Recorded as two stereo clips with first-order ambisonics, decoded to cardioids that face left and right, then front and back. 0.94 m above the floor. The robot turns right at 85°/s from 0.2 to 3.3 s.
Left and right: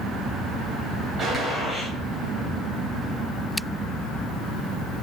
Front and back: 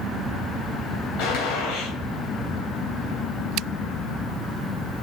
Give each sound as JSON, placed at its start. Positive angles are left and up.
{"t": 1.2, "sound": "a gunshot", "azimuth_deg": -25, "distance_m": 3.0}